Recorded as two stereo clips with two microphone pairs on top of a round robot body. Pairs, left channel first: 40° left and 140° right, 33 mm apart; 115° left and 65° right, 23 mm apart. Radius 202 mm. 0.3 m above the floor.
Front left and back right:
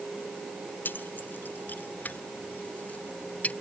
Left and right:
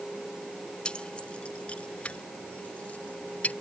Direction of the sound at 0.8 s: 65° left.